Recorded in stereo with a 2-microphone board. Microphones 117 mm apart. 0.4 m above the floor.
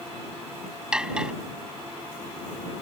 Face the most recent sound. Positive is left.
turn(degrees=-10)  # may be behind; listen again after turning